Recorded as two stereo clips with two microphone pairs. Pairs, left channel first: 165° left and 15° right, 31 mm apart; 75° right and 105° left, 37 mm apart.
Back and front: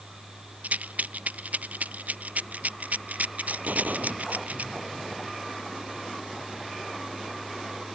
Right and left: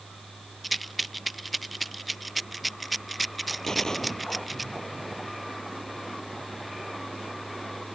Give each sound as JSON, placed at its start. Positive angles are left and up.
{"t": 0.6, "sound": "a rattle", "azimuth_deg": 15}
{"t": 3.6, "sound": "a gunshot", "azimuth_deg": 5}